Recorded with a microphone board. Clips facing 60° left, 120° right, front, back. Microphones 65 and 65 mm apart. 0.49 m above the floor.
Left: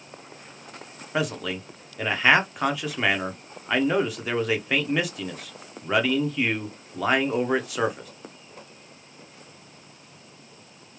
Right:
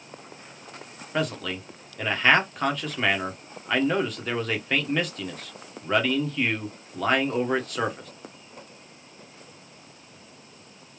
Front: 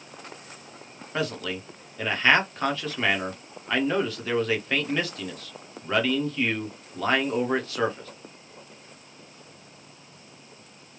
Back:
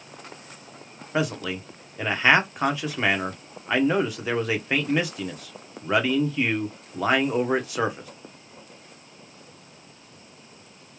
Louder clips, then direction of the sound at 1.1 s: Left 1 dB, back 3 dB; 130° left.